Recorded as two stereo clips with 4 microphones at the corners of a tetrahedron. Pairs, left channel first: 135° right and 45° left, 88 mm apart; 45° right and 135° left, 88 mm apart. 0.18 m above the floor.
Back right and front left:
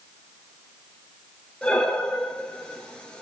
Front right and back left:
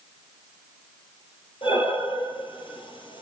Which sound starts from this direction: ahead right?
Breathing, at 1.6 s.